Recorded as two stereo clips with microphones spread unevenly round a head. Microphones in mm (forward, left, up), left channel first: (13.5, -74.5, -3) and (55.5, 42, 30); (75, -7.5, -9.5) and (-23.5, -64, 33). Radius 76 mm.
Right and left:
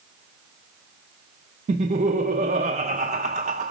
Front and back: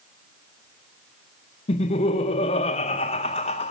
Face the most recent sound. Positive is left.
turn(degrees=35)